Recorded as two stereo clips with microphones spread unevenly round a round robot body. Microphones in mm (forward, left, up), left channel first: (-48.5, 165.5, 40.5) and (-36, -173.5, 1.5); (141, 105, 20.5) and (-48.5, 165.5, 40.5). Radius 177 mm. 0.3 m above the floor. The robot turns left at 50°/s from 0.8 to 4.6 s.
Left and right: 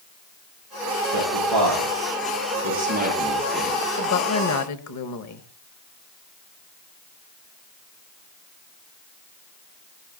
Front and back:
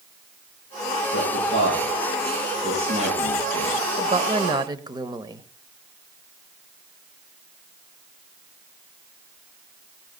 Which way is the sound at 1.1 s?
60° right.